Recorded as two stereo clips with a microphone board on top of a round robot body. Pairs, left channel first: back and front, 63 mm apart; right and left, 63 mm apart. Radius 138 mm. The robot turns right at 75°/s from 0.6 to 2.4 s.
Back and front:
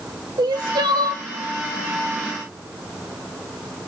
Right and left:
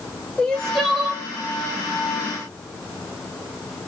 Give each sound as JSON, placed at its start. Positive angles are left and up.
{"t": 0.4, "sound": "crying", "azimuth_deg": -10, "distance_m": 1.3}